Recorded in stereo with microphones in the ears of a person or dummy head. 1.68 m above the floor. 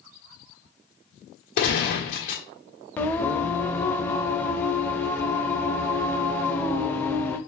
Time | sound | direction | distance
1.6 | a gunshot | 45° left (ahead or behind) | 1.7 m
3.0 | singing | 5° left (ahead or behind) | 0.6 m